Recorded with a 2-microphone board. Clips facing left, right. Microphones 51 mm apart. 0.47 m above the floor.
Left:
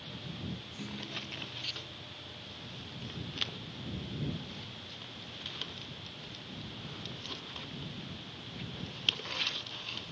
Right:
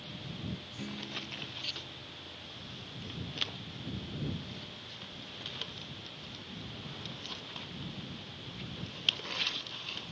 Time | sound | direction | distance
0.8 | a guitar | 15° right (ahead or behind) | ?